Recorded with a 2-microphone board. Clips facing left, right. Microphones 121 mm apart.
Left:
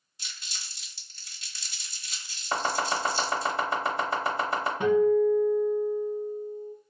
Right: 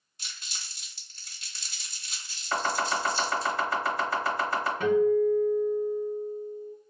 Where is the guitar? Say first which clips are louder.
Left 1 dB; 20° left (ahead or behind), 0.8 m.